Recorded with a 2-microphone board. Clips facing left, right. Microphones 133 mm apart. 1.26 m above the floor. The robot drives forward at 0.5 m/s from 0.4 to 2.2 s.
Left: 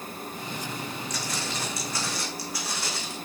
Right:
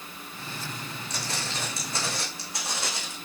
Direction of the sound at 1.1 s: 30° right (ahead or behind).